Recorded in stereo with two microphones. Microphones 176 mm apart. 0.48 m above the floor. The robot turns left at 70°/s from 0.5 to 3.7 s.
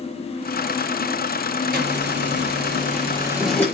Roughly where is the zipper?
Ahead right.